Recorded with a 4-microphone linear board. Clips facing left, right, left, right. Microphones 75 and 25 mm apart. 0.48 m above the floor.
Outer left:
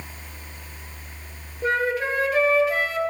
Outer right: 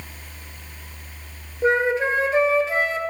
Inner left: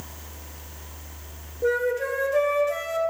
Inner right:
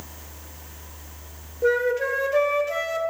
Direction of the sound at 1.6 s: 25° right (ahead or behind).